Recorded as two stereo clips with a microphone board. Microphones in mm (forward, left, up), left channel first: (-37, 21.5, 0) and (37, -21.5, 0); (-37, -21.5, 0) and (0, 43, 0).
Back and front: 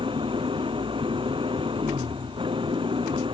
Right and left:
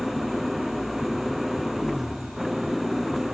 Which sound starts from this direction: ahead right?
An engine running, at 0.0 s.